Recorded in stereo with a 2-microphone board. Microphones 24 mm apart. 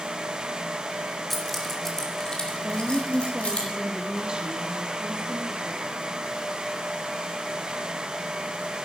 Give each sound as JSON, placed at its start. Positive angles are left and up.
{"t": 1.3, "sound": "keys jangling", "side_deg": 5, "distance_m": 2.5}
{"t": 2.6, "sound": "a woman speaking", "side_deg": -40, "distance_m": 2.0}